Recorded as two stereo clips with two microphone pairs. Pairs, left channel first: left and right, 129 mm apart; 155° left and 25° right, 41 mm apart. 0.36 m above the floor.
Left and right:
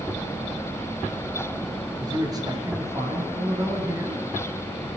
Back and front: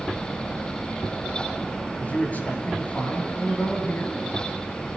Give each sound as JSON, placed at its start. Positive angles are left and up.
{"t": 2.0, "sound": "a man speaking", "azimuth_deg": -145, "distance_m": 7.5}